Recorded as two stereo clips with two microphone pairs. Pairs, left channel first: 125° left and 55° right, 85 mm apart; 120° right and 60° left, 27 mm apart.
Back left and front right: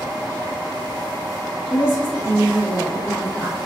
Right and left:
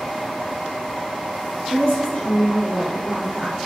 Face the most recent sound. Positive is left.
turn(degrees=-60)